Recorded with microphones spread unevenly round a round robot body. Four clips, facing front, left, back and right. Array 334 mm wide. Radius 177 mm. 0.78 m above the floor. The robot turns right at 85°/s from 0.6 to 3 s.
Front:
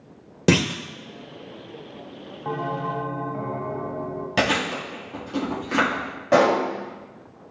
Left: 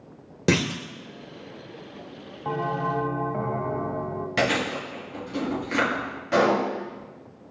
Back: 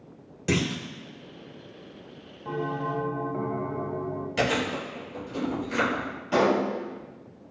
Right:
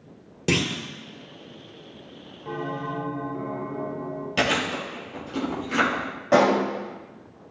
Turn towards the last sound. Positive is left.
turn(degrees=-30)